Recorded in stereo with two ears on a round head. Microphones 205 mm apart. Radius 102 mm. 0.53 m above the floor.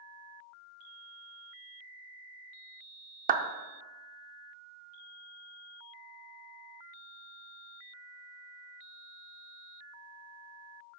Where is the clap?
35° right (ahead or behind), 0.7 m.